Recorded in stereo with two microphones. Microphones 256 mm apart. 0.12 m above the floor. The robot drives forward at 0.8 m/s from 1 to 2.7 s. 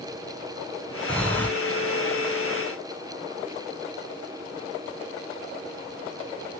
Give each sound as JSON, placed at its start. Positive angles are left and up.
{"t": 1.1, "sound": "breathing", "side_deg": 5, "distance_m": 0.8}